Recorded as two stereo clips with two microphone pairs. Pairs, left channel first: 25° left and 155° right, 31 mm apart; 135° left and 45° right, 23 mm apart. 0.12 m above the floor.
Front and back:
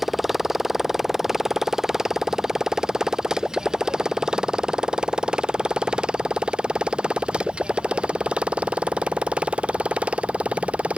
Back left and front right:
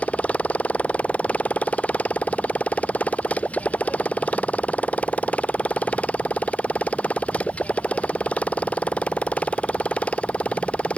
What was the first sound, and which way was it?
A motorcycle, 120° left.